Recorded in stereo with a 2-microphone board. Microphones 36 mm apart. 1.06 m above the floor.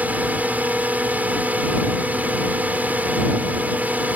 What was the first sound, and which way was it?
A drone, 45° right (ahead or behind).